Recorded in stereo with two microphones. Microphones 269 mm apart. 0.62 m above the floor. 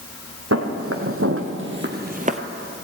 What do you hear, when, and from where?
0.5 s footsteps: 65° right (ahead or behind), 1.7 m; by 2.4 s 25° right (ahead or behind), 0.7 m